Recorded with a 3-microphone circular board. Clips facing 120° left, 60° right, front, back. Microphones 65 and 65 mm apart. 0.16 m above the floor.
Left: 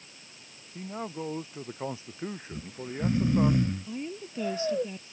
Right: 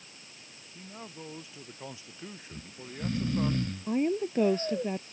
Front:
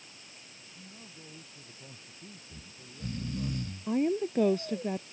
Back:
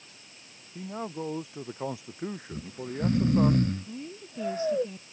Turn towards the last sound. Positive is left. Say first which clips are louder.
# right 9 dB, front 13 dB
turn(degrees=-20)